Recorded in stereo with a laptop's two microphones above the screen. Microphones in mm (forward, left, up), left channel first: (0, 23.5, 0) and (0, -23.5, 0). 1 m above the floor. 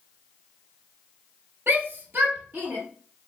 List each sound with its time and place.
1.7 s a shout: 50° right (ahead or behind), 1.0 m; by 2.8 s 35° right (ahead or behind), 1.3 m